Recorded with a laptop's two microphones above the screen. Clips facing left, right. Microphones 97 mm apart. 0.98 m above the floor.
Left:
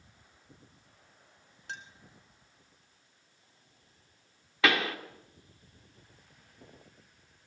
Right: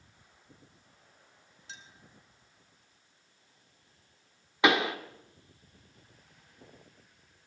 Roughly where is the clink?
Left.